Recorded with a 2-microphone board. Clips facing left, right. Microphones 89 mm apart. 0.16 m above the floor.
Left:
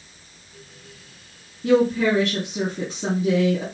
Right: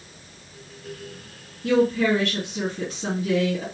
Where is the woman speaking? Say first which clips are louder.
Left 2 dB; 30° left (ahead or behind), 1.7 m.